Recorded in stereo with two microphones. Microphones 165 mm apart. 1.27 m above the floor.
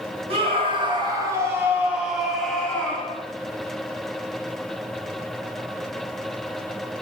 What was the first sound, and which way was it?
A scream, 35° right (ahead or behind).